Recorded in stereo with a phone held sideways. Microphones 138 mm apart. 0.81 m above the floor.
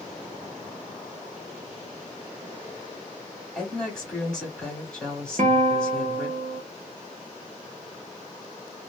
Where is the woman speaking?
5° left (ahead or behind), 1.9 m.